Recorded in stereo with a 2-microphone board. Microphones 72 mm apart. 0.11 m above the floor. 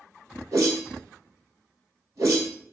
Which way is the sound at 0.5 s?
50° right (ahead or behind).